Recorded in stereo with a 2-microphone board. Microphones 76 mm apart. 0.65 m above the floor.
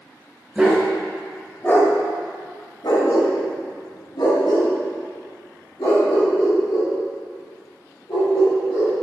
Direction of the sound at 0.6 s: 10° right (ahead or behind).